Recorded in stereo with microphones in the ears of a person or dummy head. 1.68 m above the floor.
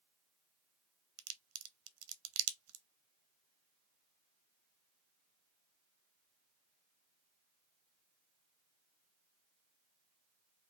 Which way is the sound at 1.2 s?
80° right.